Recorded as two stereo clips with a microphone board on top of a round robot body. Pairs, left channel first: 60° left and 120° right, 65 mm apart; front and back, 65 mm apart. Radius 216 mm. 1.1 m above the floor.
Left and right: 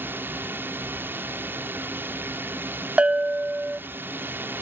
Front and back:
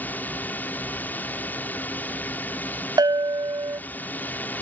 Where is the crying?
No crying in this recording.